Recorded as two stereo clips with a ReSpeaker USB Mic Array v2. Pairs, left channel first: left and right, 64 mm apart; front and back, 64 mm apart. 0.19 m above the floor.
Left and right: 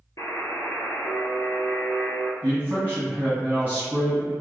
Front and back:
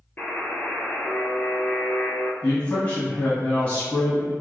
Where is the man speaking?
50° right, 1.6 m.